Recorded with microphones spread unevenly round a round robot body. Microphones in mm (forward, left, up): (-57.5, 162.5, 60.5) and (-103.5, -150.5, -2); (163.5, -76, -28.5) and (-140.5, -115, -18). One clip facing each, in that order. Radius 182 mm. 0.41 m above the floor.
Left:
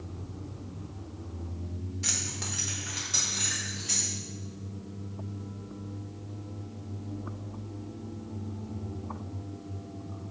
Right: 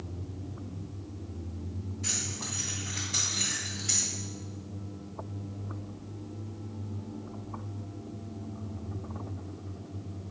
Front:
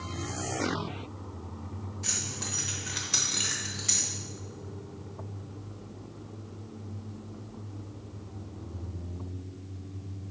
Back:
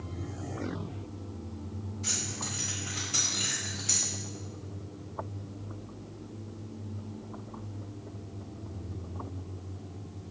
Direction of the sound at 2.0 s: 55° left.